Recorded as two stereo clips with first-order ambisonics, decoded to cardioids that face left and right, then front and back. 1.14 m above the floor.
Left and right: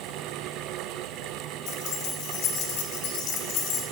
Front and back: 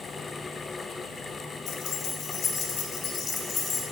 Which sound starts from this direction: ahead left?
Keys jangling, at 1.7 s.